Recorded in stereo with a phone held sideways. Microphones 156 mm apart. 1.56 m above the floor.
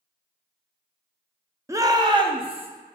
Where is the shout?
20° right (ahead or behind), 0.6 m; by 2.7 s 40° right (ahead or behind), 1.1 m.